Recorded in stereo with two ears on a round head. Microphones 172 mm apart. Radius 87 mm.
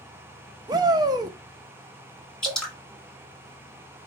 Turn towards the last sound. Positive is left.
turn(degrees=5)  # may be behind; listen again after turning